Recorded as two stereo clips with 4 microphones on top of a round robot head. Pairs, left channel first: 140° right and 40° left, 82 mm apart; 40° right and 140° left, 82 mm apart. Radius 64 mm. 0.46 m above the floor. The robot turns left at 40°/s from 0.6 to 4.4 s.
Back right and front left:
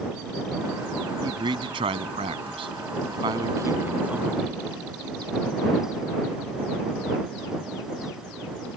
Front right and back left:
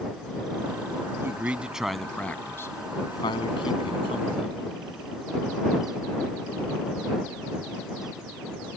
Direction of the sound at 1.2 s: 80° left.